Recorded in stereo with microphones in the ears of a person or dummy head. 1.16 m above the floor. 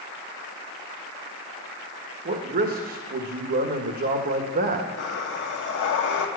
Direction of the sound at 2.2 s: 45° right (ahead or behind).